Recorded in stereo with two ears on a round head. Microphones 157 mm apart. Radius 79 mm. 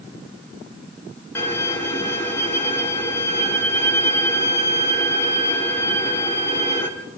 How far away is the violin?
About 4.5 m.